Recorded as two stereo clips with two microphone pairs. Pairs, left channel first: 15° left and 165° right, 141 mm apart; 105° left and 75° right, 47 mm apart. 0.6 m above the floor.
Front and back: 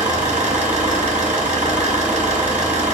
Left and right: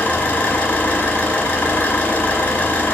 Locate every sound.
0.0 s an engine running: 160° left, 4 m